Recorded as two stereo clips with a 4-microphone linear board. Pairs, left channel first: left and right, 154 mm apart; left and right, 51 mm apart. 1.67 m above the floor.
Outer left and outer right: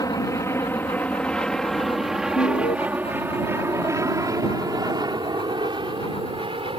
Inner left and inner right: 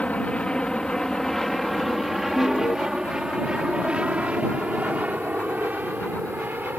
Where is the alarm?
80° left.